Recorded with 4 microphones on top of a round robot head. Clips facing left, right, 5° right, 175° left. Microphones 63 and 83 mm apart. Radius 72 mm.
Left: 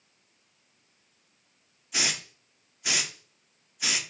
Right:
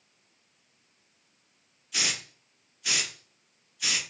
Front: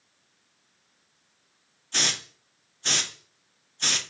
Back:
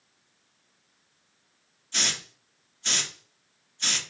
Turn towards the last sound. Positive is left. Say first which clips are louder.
# left 1 dB, front 2 dB
turn(degrees=30)